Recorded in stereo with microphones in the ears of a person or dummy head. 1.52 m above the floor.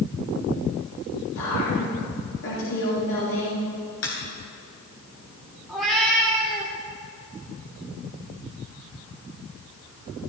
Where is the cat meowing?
Centre (ahead or behind), 1.6 m.